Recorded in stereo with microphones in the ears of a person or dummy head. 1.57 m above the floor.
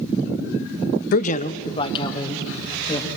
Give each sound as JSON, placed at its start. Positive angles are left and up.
{"t": 1.1, "sound": "a man speaking", "side_deg": 50, "distance_m": 0.6}